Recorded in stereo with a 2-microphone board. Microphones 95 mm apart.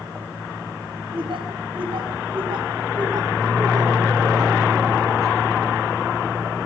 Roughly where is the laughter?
Right.